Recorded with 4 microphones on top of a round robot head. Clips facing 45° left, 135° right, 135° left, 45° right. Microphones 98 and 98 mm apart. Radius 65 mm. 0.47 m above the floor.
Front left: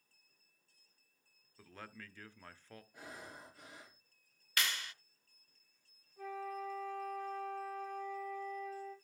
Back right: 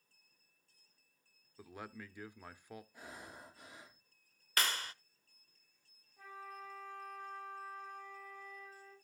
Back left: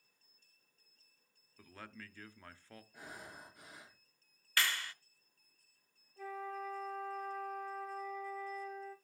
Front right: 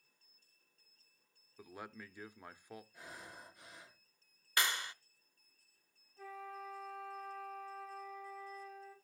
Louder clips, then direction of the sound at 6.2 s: Front left 8 dB, back left 5 dB; 100° left.